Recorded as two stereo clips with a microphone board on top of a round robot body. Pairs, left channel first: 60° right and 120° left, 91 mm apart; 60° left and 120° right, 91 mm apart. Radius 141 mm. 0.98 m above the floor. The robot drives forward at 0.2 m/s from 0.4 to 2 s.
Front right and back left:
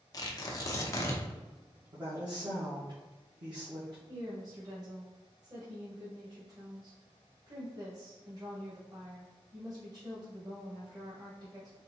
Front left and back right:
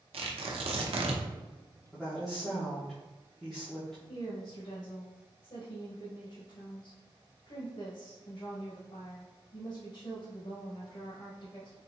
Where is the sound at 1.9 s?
145° left, 1.3 m.